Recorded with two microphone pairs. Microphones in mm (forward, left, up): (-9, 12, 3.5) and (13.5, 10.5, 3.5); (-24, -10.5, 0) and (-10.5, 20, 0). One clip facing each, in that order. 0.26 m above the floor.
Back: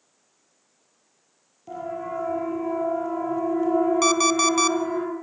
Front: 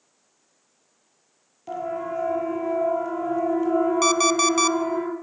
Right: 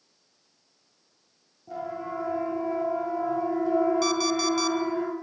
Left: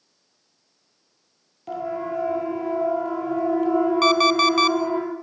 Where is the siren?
60° left, 7.5 m; by 5.0 s 85° left, 8 m.